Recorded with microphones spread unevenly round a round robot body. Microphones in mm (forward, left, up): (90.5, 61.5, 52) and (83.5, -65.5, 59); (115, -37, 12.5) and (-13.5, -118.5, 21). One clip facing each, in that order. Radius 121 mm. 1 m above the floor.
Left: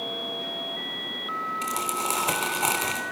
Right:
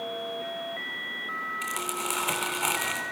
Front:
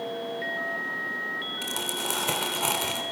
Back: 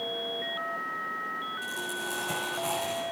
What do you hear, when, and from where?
1.6 s crumpling: 35° left, 4 m